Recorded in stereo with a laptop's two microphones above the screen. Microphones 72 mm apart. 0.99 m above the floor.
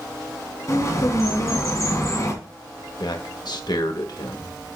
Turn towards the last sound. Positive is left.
turn(degrees=65)  # may be behind; listen again after turning